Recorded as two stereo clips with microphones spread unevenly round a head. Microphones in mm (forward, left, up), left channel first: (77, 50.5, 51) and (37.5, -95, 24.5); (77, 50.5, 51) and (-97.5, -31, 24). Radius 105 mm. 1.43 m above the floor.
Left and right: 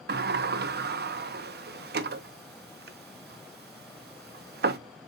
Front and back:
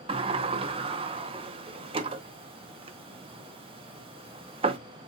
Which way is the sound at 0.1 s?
90° right.